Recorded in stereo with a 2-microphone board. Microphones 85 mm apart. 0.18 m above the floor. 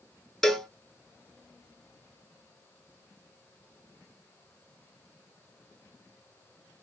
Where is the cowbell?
5° left (ahead or behind), 0.6 m.